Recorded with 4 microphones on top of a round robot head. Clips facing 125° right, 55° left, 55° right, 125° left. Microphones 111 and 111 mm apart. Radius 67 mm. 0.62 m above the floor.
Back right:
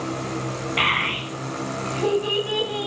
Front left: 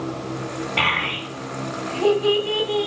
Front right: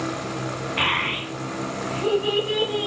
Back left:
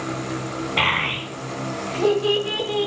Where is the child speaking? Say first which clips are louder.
Front left 1 dB, back left 2 dB; 110° left, 2.5 m; by 2.9 s 125° left, 3.5 m.